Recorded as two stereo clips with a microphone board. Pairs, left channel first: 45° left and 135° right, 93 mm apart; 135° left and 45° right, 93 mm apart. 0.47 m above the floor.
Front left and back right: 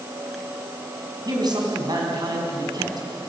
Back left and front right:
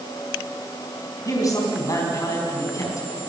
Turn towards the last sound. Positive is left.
turn(degrees=-175)